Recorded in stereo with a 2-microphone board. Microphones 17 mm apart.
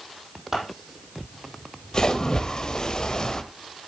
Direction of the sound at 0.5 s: 25° right (ahead or behind).